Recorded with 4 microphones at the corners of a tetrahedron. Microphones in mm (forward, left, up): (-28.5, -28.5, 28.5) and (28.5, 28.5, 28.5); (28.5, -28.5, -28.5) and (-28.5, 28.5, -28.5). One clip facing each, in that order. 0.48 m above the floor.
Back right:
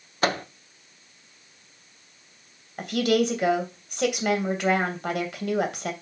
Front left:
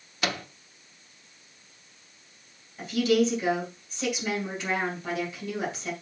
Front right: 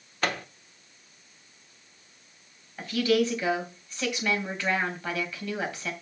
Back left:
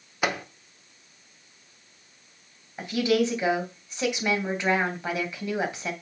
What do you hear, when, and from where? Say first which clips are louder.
0.2 s a microwave: back right 6 dB, back left 2 dB; 155° right, 0.7 m
2.8 s a woman speaking: back right 1 dB, back left 1 dB; 155° right, 2.5 m